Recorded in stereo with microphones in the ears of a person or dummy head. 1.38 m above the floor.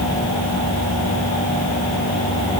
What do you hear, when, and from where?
Only background noise.